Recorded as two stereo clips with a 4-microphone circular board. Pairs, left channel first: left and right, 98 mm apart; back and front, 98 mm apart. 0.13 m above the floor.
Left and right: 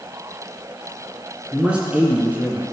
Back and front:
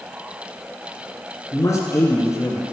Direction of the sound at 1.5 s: 160° right.